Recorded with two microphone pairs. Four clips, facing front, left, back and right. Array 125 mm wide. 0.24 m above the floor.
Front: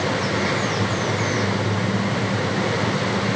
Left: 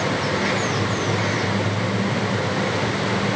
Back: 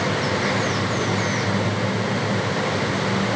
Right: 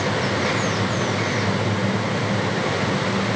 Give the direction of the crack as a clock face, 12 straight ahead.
I don't hear a crack.